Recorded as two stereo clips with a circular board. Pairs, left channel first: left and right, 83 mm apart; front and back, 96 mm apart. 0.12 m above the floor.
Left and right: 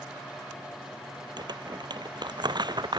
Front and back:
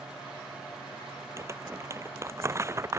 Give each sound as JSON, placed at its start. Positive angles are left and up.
{"t": 1.4, "sound": "crumpling", "azimuth_deg": -120}